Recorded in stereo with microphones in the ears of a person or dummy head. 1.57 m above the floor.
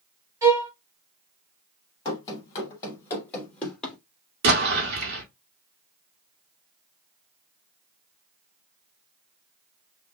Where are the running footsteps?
30° left (ahead or behind), 3 m; by 4.0 s 5° left (ahead or behind), 3 m.